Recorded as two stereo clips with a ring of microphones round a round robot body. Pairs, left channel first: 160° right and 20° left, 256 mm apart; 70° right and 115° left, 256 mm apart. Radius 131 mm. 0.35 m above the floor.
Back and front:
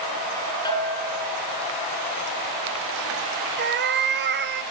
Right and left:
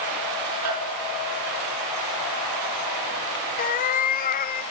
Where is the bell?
130° left, 5 m.